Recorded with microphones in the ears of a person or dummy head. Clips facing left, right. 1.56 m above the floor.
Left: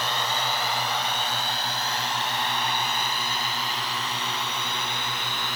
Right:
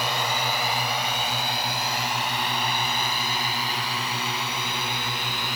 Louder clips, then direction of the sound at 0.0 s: Right 2 dB; 10° right (ahead or behind).